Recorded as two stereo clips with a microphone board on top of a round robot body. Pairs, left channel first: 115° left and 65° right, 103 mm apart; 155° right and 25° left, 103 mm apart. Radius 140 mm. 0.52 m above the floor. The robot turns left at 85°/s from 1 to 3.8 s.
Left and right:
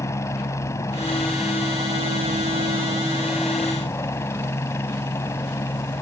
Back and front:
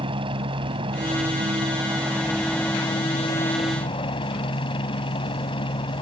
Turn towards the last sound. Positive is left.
turn(degrees=175)